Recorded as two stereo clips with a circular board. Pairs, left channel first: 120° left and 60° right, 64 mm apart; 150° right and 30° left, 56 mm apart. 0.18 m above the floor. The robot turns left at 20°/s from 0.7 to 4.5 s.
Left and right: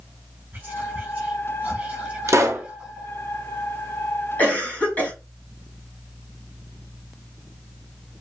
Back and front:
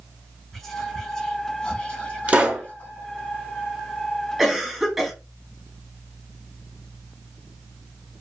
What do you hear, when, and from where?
0.5 s whispering: 75° right, 1.1 m; by 3.1 s 125° right, 1.1 m
2.3 s a pop: 35° right, 0.7 m; by 2.7 s 40° right, 0.7 m
4.4 s a cough: 105° left, 1.0 m